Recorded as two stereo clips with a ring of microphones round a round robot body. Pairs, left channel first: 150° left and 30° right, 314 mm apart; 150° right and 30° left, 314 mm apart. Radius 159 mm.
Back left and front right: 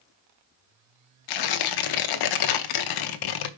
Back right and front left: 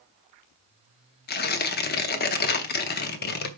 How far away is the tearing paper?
About 0.7 m.